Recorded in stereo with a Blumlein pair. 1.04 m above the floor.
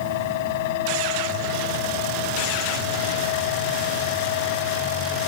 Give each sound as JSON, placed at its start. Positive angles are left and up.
{"t": 0.0, "sound": "a fan", "azimuth_deg": 50}